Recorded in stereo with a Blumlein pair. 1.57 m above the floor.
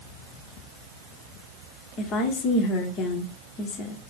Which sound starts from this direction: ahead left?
A woman speaking, at 2.0 s.